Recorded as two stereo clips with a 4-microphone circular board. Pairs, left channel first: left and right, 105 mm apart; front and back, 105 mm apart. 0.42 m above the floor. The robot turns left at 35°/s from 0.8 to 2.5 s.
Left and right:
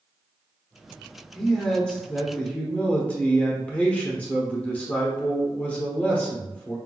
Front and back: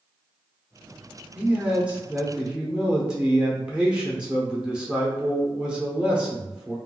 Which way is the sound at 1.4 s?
170° left.